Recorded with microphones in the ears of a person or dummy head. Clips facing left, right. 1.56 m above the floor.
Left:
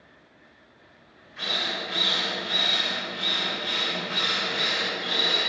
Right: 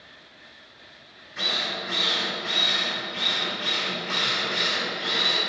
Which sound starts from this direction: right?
A drill, at 1.4 s.